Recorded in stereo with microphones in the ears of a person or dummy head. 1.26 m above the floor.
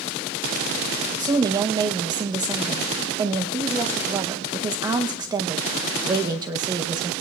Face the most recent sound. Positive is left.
turn(degrees=-15)  # may be behind; listen again after turning